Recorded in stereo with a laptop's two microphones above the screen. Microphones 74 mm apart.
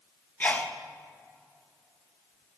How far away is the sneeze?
About 1.1 m.